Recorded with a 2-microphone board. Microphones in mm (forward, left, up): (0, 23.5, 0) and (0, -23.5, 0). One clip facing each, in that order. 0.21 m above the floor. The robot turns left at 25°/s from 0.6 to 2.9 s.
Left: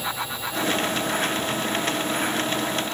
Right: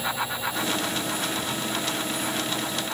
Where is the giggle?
I don't hear a giggle.